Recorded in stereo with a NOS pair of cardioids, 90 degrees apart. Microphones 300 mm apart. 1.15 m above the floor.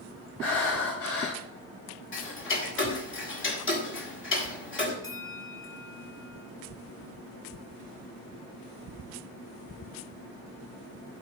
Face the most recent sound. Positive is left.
turn(degrees=10)